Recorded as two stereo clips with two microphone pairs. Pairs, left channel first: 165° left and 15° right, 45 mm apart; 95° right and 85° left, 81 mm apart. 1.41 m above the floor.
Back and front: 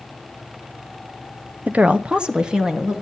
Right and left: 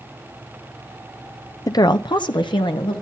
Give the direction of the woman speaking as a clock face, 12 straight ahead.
2 o'clock.